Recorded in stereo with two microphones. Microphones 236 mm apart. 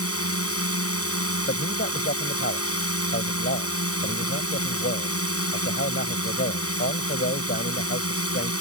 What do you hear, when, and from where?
0.0 s a drone: 75° left (ahead or behind)
1.5 s a man speaking: 55° left (ahead or behind)